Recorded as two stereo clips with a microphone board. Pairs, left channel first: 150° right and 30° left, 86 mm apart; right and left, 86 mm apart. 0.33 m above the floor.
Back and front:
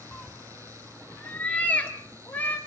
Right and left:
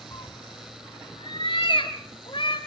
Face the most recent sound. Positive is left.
turn(degrees=-80)